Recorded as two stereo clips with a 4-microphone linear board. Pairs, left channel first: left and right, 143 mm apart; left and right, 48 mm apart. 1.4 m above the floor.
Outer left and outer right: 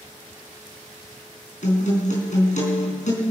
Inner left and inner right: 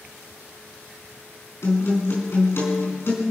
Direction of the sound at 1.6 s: 60° left (ahead or behind).